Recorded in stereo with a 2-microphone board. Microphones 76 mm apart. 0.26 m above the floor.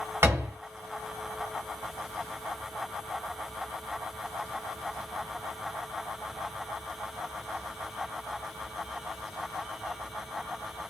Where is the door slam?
35° right (ahead or behind), 1.4 m.